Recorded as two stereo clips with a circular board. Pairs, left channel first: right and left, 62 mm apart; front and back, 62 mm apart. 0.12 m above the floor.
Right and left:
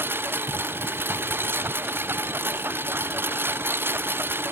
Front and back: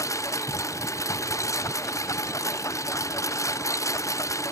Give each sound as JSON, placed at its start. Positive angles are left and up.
{"t": 0.0, "sound": "a lawn mower", "azimuth_deg": 35}